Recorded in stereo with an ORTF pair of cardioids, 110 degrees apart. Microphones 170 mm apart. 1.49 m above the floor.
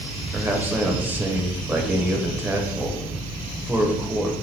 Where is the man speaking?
10° right, 0.7 m.